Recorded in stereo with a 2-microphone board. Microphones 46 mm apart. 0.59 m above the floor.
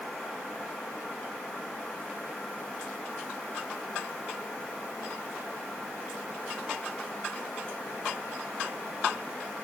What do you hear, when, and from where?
Only background noise.